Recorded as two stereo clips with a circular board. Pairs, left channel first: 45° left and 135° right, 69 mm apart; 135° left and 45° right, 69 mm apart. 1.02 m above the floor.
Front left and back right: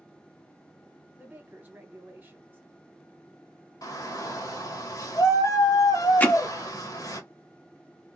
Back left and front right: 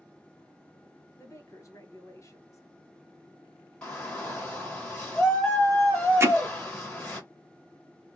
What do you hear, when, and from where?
1.2 s a woman speaking: 170° left, 1.0 m
3.8 s a shout: 55° left, 1.5 m
6.2 s hammering: 10° right, 0.7 m